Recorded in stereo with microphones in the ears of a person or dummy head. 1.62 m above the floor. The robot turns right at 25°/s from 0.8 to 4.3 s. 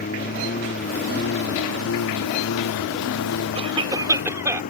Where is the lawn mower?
50° left; by 4.7 s 135° left.